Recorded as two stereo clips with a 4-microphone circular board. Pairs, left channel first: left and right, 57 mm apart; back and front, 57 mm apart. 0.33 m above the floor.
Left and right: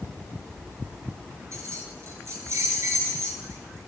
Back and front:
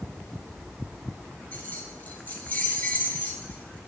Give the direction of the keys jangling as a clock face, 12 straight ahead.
4 o'clock.